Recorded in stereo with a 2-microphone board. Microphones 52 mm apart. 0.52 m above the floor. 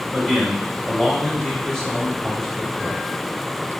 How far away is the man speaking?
About 3.5 m.